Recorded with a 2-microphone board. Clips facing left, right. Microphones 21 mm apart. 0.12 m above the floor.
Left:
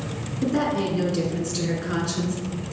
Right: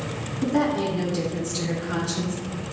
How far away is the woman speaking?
About 1.1 m.